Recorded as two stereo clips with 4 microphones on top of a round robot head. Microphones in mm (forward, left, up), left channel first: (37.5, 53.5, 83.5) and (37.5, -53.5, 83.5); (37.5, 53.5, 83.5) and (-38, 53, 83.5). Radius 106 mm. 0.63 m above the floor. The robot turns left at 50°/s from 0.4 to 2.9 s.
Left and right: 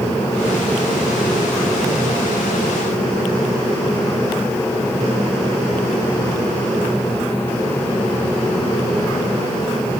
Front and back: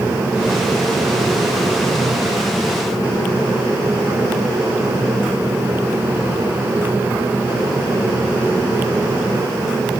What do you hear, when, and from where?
Only background noise.